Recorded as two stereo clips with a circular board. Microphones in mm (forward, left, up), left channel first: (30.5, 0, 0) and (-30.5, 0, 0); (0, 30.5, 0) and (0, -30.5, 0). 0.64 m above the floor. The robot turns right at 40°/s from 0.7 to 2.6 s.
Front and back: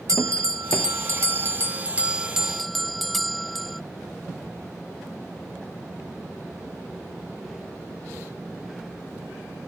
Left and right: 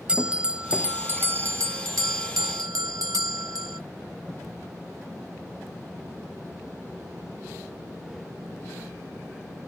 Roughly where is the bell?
Behind.